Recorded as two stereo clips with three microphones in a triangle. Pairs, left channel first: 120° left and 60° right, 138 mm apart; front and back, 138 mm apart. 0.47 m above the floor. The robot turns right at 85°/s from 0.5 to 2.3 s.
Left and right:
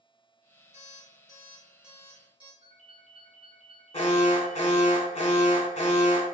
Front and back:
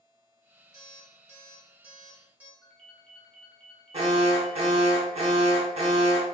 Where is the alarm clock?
125° left, 0.9 m; by 2.5 s 105° right, 0.9 m.